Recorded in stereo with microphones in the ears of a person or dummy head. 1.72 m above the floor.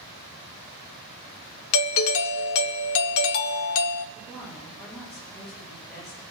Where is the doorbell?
75° left (ahead or behind), 0.5 m.